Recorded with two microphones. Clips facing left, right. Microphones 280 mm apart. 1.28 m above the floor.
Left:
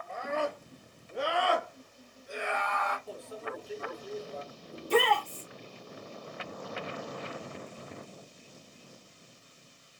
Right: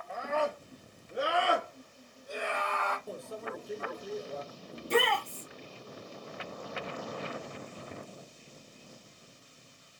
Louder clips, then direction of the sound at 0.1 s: Right 1 dB; 5° right (ahead or behind).